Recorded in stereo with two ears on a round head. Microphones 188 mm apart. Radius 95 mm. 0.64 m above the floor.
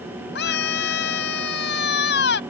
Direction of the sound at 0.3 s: 55° left (ahead or behind).